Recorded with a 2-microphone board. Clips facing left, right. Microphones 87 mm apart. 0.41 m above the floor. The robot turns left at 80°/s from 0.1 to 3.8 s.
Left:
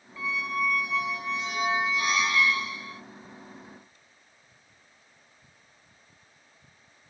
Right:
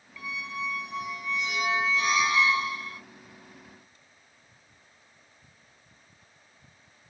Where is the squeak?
155° left, 1.1 m; by 3.0 s 75° right, 1.1 m.